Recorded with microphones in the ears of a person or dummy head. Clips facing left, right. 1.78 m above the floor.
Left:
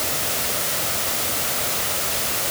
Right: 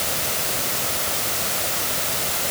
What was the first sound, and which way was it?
Only background noise.